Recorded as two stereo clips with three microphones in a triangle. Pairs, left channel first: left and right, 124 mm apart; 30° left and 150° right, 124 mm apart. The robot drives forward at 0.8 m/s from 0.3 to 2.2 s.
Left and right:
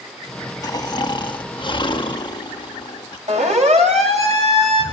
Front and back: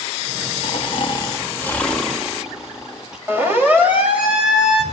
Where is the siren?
80° right, 4 m; by 4.8 s 65° right, 3 m.